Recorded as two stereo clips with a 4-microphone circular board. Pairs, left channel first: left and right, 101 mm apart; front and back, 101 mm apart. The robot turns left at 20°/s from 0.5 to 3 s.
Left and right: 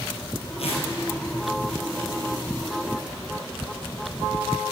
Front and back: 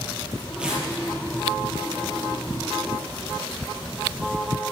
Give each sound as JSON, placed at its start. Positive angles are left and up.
{"t": 0.6, "sound": "tearing paper", "azimuth_deg": 100, "distance_m": 3.5}